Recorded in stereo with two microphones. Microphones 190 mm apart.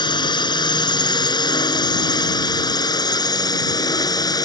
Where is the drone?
20° left (ahead or behind).